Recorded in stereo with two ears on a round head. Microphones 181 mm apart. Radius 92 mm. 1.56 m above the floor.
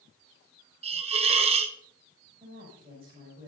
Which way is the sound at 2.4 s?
30° right (ahead or behind).